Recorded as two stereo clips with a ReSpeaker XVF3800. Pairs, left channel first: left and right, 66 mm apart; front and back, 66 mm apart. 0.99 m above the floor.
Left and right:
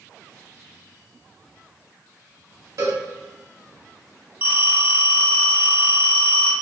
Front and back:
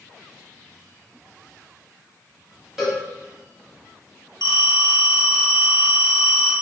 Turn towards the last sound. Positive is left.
turn(degrees=-150)